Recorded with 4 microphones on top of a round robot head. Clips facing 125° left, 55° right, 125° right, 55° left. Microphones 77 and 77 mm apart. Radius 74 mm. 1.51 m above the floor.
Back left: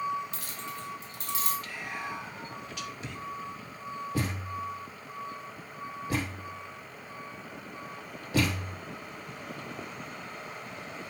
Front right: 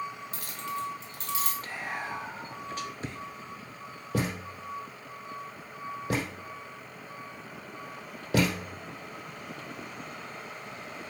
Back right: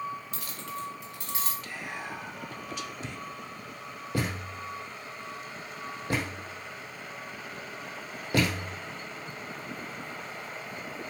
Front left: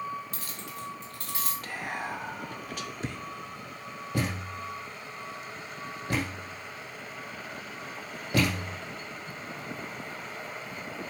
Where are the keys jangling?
5° left, 1.1 m; by 1.5 s 65° right, 1.7 m.